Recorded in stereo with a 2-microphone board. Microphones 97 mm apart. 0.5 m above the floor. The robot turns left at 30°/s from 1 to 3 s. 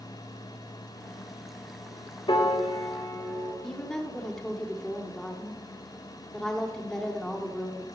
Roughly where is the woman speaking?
Centre.